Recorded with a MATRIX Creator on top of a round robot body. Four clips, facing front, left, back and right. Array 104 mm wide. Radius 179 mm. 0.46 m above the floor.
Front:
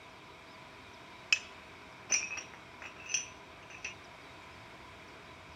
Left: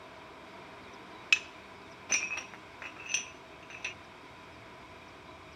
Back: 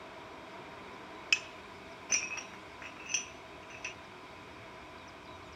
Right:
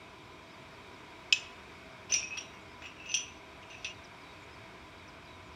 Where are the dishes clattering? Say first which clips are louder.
Left 3 dB, front 1 dB; 90° left, 0.5 m.